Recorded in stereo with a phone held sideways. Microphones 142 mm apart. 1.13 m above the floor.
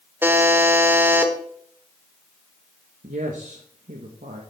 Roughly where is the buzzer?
Centre.